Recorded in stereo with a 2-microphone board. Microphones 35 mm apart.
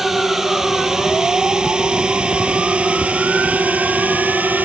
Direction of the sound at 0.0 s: 10° right (ahead or behind).